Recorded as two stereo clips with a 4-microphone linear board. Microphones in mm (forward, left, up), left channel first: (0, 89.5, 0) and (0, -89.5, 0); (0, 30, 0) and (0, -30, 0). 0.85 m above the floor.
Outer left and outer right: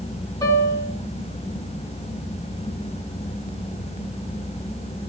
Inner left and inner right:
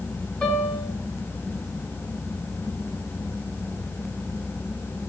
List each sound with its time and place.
0.4 s a piano: 20° left (ahead or behind), 5.5 m